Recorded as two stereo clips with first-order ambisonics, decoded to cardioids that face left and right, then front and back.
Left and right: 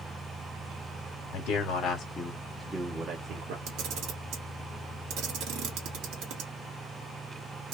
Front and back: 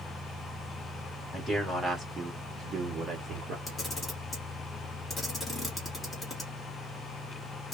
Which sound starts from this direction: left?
A man speaking, at 1.3 s.